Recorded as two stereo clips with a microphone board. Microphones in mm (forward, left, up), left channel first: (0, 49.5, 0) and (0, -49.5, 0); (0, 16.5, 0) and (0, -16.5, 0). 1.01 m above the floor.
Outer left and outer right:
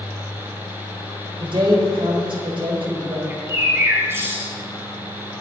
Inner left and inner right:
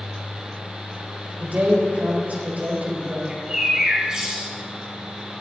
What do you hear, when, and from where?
1.4 s a man speaking: 60° right (ahead or behind), 4 m
3.3 s a bird: 25° right (ahead or behind), 3.5 m